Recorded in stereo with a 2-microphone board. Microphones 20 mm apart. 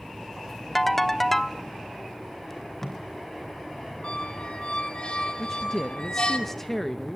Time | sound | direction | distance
0.8 | a ringtone | 10° left (ahead or behind) | 0.8 m
2.5 | tape being pulled | 20° left (ahead or behind) | 3 m
4.0 | a squeak | 55° left (ahead or behind) | 1.4 m
5.4 | a man speaking | 15° left (ahead or behind) | 0.9 m